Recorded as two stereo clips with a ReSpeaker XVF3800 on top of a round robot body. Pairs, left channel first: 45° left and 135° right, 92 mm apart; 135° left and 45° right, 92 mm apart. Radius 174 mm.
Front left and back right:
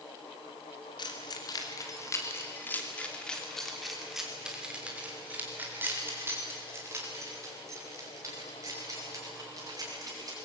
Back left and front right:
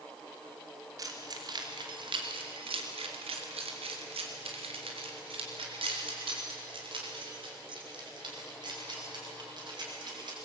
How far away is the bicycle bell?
No bicycle bell in this recording.